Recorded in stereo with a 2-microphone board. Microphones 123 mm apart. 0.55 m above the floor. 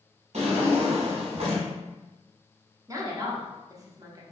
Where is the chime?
No chime in this recording.